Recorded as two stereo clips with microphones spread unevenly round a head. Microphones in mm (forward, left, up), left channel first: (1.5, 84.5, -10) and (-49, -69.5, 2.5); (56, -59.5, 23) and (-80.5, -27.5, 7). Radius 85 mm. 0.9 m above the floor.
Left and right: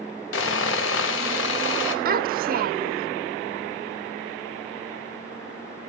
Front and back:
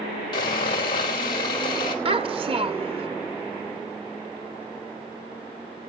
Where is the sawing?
55° left, 4 m.